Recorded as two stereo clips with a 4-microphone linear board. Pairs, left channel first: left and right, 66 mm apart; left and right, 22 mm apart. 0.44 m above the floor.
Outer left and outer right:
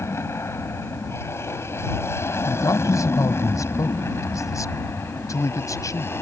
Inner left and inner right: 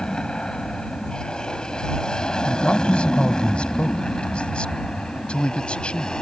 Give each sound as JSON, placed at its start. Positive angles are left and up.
{"t": 0.0, "sound": "an aircraft", "side_deg": 40}
{"t": 2.5, "sound": "a man speaking", "side_deg": 60}